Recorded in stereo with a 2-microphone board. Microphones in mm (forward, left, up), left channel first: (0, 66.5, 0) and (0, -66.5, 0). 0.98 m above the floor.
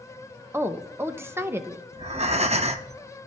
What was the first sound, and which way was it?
A woman speaking, 20° right (ahead or behind).